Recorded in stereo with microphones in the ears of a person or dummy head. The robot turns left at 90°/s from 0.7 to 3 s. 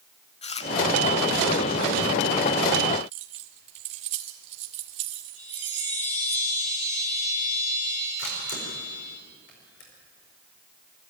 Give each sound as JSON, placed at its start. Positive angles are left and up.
{"t": 0.4, "sound": "chewing", "side_deg": 30, "distance_m": 0.9}
{"t": 3.1, "sound": "keys jangling", "side_deg": -35, "distance_m": 2.0}
{"t": 5.4, "sound": "a chime", "side_deg": 40, "distance_m": 6.5}
{"t": 8.2, "sound": "a camera shutter", "side_deg": 55, "distance_m": 5.0}